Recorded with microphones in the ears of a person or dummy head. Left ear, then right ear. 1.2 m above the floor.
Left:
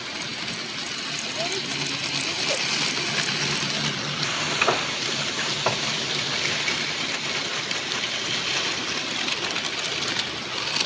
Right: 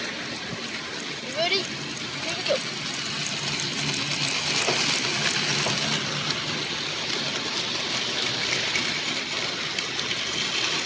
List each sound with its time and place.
1.2 s a child speaking: 60° right (ahead or behind); by 2.7 s 70° right (ahead or behind)
4.2 s frying: 65° left (ahead or behind)